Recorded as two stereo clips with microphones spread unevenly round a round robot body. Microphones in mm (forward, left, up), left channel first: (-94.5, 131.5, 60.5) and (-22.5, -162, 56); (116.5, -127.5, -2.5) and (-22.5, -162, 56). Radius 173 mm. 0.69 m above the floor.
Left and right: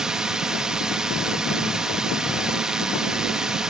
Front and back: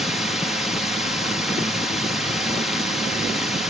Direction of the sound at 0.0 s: 5° left.